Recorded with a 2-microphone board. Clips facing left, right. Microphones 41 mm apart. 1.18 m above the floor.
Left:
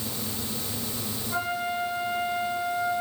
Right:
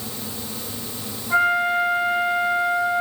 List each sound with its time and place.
1.3 s a flute: 70° right (ahead or behind), 4.5 m